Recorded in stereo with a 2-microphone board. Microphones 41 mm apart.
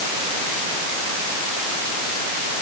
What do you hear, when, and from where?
Only background noise.